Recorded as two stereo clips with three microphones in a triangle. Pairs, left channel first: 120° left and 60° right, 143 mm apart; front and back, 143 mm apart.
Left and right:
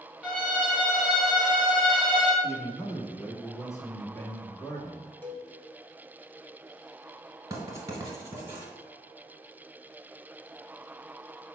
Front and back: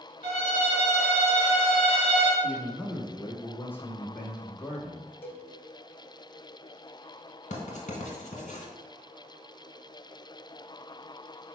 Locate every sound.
0.2 s a violin: 140° right, 1.8 m
2.4 s a man speaking: 65° left, 1.3 m
5.2 s a cowbell: 55° left, 0.6 m
7.5 s writing: straight ahead, 1.4 m